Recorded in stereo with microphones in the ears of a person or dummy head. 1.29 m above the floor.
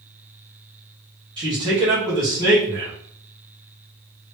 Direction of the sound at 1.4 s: 25° right (ahead or behind).